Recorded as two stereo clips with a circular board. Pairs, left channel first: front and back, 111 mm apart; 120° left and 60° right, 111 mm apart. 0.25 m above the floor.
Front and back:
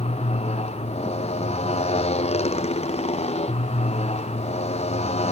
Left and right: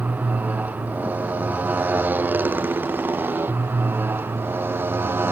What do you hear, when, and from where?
0.0 s a motorcycle: 15° left; by 5.3 s 10° left